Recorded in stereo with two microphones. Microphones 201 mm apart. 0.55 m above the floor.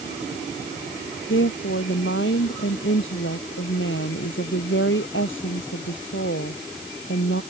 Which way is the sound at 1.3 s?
75° left (ahead or behind).